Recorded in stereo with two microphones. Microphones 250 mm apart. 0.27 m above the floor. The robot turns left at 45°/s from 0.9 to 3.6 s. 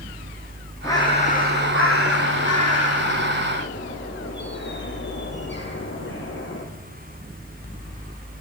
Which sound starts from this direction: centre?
A bird, at 0.8 s.